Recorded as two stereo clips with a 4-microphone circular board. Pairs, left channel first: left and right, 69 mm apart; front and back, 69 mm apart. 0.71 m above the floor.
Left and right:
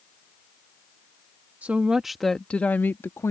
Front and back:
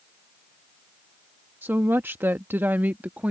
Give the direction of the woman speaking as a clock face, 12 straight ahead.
5 o'clock.